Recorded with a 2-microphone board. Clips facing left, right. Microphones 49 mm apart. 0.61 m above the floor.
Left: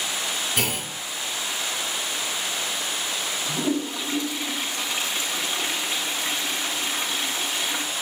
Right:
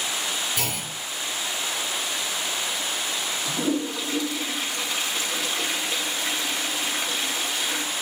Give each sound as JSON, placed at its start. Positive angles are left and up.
{"t": 0.6, "sound": "a clunk", "side_deg": 75, "distance_m": 3.0}
{"t": 3.5, "sound": "a toilet flushing", "side_deg": 25, "distance_m": 4.0}